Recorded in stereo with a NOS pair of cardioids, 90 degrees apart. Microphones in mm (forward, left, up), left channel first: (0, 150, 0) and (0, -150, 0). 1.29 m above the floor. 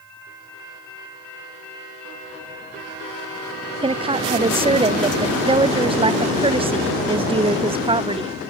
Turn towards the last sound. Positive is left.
turn(degrees=-20)